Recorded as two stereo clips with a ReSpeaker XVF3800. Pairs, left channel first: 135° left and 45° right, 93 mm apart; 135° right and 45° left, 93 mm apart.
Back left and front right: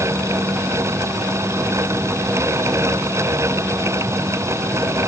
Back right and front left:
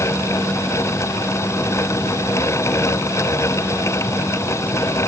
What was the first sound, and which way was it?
Only background noise.